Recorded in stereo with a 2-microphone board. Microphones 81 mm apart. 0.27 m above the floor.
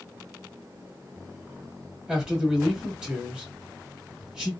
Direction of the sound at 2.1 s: 10° right (ahead or behind).